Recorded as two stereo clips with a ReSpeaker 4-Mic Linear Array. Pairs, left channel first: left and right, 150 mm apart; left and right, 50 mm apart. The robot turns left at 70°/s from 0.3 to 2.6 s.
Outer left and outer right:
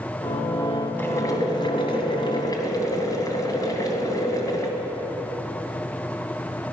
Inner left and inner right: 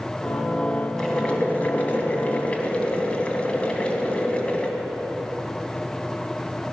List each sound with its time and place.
1.0 s boiling: 160° left, 1.9 m; by 4.7 s 45° left, 1.9 m